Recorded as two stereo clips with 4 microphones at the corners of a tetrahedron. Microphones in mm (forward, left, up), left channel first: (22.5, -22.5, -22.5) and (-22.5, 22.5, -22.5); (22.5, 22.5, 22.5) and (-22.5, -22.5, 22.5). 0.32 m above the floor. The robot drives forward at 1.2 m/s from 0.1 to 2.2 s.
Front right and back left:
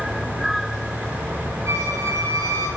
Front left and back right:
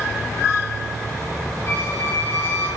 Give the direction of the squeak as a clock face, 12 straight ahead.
9 o'clock.